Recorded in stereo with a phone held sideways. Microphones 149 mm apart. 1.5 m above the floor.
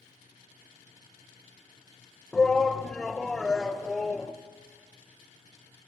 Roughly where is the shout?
Centre.